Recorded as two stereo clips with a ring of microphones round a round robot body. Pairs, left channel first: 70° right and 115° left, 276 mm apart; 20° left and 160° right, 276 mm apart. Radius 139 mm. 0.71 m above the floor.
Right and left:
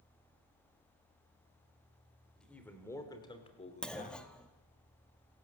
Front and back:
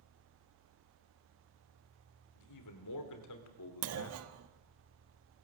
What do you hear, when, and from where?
2.4 s a man speaking: 20° left, 3.5 m; by 4.2 s 15° right, 2.5 m
3.8 s a clunk: 155° right, 1.5 m